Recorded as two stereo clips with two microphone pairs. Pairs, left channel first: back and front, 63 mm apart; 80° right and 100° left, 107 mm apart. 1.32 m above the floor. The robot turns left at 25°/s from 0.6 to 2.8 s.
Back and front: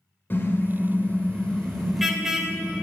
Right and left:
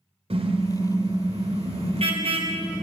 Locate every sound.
0.3 s a car horn: 120° left, 2.5 m; by 2.8 s 65° left, 2.5 m